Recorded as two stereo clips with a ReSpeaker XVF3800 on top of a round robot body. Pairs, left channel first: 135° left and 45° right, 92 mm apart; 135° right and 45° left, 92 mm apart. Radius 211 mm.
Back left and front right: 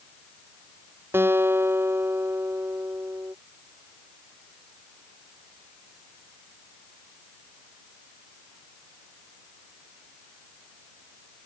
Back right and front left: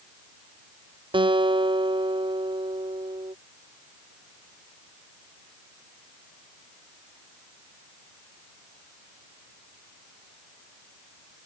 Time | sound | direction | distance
1.1 | a guitar | 20° left | ?